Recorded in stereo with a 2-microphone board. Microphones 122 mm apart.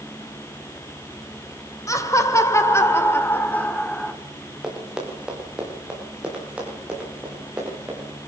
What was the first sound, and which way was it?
Laughter, 25° left (ahead or behind).